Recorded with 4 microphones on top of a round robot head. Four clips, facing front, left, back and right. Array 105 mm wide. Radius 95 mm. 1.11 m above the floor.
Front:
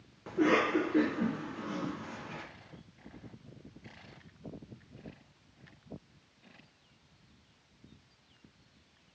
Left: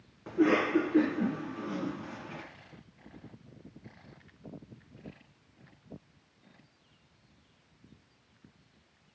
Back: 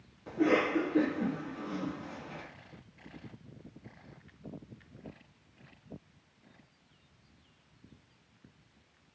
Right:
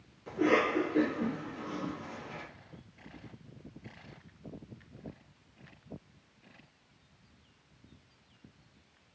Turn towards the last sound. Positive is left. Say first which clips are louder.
# left 2 dB, even
turn(degrees=60)